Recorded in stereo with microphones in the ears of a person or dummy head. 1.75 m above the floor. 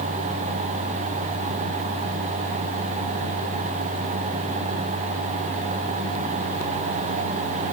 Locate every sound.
Only background noise.